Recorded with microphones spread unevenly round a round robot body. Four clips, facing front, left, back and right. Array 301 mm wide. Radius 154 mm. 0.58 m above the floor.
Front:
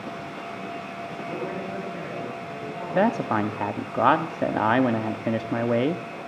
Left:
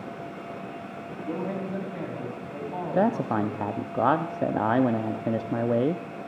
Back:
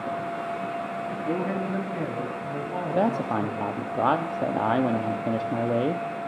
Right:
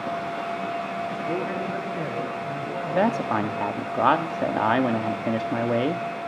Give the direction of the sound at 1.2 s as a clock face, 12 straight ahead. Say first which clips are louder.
Even, back 4 dB; 6 o'clock.